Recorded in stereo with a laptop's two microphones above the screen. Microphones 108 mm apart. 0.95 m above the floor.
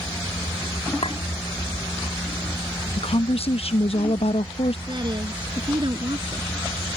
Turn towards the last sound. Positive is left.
turn(degrees=-45)  # may be behind; listen again after turning